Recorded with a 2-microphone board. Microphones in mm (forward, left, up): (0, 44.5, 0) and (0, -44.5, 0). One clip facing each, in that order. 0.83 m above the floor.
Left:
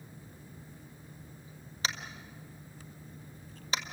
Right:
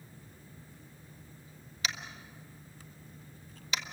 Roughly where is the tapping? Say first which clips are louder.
Left 2 dB; left.